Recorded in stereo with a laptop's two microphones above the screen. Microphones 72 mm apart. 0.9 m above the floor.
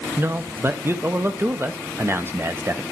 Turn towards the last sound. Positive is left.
turn(degrees=-35)  # may be behind; listen again after turning